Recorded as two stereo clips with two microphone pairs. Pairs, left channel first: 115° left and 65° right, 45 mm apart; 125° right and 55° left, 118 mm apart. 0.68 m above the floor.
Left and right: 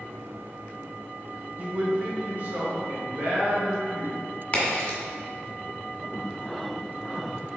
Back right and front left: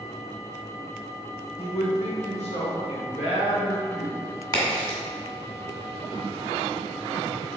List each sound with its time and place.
1.6 s a man speaking: 120° right, 1.2 m; by 4.2 s 105° right, 3 m
4.5 s a crack: straight behind, 1.8 m